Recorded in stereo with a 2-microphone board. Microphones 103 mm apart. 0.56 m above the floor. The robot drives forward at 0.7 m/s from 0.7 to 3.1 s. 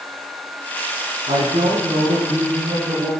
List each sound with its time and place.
1.3 s a woman speaking: 85° right, 7 m; by 3.1 s 80° right, 7 m